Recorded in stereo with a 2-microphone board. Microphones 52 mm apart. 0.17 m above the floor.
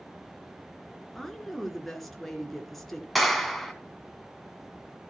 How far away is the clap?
About 1.4 m.